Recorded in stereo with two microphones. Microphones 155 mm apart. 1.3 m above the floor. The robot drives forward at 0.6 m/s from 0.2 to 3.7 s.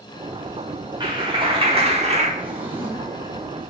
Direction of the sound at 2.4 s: 10° right (ahead or behind).